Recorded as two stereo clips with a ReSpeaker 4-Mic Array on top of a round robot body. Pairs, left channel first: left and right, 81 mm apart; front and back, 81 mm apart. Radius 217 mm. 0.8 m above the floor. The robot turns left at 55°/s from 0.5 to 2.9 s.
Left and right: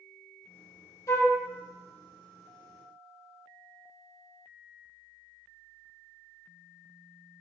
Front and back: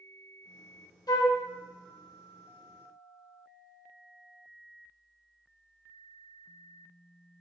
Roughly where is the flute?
Ahead left.